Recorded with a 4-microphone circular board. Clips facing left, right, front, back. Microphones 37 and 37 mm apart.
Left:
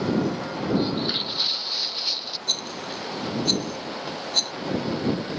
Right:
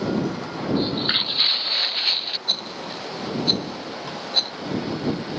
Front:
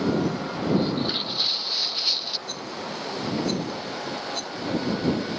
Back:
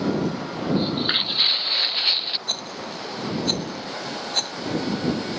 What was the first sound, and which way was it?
Footsteps, 140° right.